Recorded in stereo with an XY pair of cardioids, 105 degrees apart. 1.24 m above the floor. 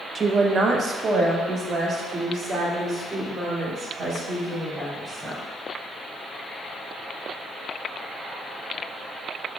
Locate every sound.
0.1 s a woman speaking: 35° right, 0.5 m; by 5.4 s 50° right, 3.5 m